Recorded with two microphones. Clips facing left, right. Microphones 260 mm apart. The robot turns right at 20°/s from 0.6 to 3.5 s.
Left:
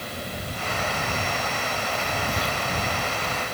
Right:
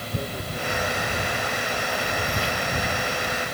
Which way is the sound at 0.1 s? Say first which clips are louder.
Right 6 dB; 65° right (ahead or behind).